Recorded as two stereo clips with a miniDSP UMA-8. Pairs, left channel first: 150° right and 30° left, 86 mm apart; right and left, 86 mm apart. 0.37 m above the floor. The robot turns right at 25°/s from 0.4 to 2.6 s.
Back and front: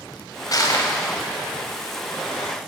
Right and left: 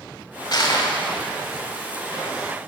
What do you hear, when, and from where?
0.5 s crushing: 115° right, 2 m; by 0.9 s 105° right, 2 m